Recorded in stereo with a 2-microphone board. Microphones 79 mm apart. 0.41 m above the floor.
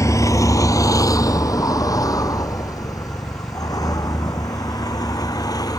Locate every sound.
0.0 s a vehicle: 45° left (ahead or behind); by 5.8 s 55° left (ahead or behind)